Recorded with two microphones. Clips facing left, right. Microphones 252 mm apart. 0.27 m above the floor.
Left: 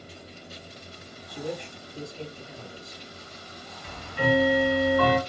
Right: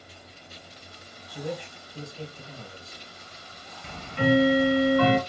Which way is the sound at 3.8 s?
30° right (ahead or behind).